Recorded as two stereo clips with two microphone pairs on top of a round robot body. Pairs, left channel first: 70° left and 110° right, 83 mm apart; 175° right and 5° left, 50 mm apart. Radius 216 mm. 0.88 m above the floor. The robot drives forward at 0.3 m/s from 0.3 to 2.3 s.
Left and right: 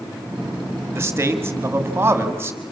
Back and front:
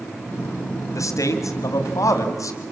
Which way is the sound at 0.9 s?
170° right.